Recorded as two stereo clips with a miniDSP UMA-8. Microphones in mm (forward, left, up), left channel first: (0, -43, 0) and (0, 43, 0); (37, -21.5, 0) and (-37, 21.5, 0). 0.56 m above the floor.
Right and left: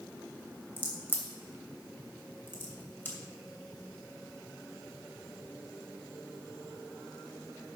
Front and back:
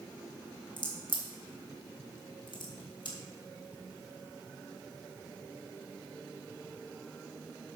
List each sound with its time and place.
0.8 s a crack: 30° right, 2.5 m